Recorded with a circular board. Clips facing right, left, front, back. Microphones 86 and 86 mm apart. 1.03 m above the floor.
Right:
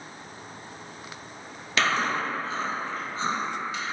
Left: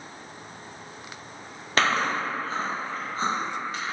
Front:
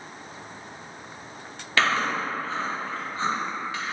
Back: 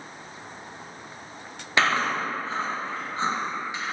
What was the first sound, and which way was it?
Chewing, 115° left.